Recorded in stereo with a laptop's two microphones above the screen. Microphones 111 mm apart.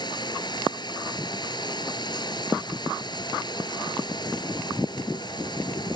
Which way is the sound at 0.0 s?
40° left (ahead or behind).